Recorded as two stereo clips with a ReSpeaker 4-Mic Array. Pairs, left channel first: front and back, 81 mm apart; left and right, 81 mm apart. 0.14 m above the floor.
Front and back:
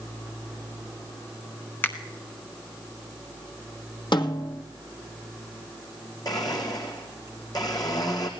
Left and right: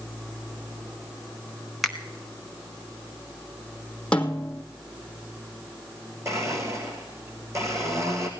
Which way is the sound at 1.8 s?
Straight ahead.